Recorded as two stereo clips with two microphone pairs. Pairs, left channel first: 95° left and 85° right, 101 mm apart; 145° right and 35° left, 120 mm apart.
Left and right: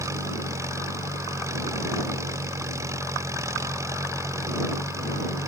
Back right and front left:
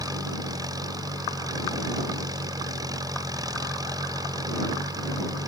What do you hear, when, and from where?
0.0 s an engine running: 25° right